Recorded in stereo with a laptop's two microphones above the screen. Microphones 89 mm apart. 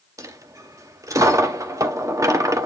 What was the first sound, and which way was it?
A dropped coin, 35° right (ahead or behind).